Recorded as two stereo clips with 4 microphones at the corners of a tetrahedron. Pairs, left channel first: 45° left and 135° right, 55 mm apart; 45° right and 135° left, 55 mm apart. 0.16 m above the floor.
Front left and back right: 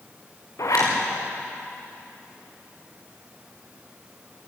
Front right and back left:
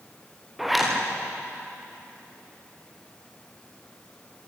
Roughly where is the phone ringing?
I don't hear a phone ringing.